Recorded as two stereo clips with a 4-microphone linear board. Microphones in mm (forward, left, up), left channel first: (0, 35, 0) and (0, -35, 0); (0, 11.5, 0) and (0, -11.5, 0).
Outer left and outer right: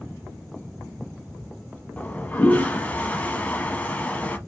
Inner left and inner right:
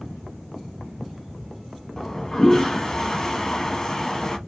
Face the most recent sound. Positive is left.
turn(degrees=25)  # may be behind; listen again after turning